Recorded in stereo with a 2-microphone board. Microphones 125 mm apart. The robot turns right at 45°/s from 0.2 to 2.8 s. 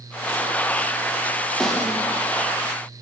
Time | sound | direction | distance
1.6 | a snare drum | 5° left (ahead or behind) | 3.5 m